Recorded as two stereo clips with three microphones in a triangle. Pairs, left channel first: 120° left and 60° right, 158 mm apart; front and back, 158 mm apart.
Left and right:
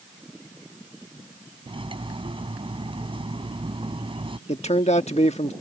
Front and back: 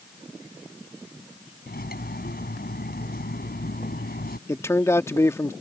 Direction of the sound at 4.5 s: 70° left.